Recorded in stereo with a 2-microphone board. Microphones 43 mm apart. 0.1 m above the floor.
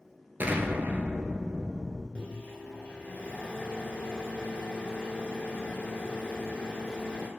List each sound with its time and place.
0.4 s an explosion: 45° right (ahead or behind), 0.5 m
2.1 s a microwave: 25° left (ahead or behind), 1.0 m